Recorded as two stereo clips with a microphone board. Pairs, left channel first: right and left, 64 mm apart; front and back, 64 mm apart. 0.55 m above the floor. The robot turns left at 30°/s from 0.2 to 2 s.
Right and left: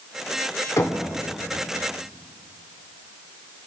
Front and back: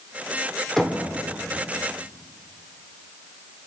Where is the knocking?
75° right, 1.6 m; by 1.0 s 85° right, 1.6 m.